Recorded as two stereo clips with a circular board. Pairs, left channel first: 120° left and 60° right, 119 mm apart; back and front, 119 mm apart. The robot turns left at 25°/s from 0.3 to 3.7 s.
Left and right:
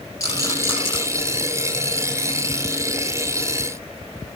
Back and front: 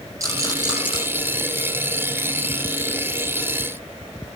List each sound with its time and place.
0.2 s a rattle: 60° left, 7 m; by 1.0 s 45° left, 7 m